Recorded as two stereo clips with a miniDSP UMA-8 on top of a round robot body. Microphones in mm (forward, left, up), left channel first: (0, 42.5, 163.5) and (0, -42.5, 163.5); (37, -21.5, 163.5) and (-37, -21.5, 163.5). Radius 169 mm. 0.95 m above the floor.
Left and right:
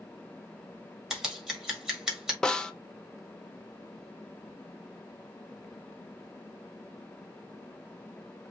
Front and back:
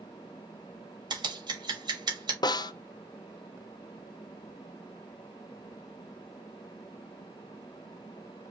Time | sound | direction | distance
1.1 | scissors | 170° right | 1.9 m
2.4 | a snare drum | 10° left | 0.7 m